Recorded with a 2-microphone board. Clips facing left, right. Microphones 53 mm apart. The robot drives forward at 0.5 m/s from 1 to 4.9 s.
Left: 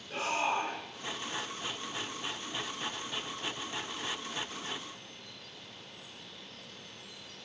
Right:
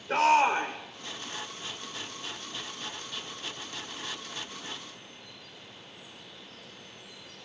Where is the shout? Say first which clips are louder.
Right 9 dB; 80° right, 2.5 m.